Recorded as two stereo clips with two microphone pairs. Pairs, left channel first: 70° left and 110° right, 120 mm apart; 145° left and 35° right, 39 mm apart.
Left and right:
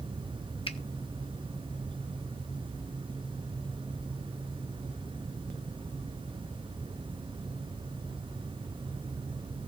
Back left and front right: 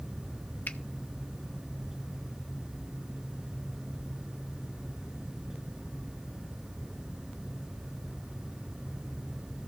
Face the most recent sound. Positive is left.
turn(degrees=110)